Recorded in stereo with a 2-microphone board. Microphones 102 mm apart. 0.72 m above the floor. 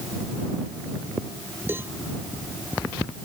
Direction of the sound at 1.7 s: 20° right (ahead or behind).